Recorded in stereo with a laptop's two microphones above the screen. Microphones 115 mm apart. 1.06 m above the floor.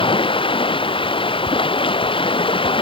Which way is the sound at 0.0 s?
50° left (ahead or behind).